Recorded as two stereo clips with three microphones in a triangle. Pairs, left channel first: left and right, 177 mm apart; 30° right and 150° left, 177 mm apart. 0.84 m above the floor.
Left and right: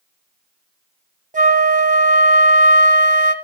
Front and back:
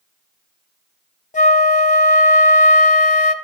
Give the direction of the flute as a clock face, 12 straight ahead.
2 o'clock.